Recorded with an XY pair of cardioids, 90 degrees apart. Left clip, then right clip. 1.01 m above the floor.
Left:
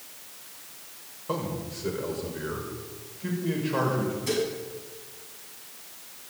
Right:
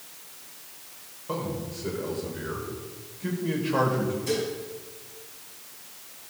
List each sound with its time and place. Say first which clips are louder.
1.3 s a man speaking: even; 20° left, 5 m; by 4.1 s 20° right, 5.5 m
4.3 s dishes clattering: left 2 dB; 20° left, 5.5 m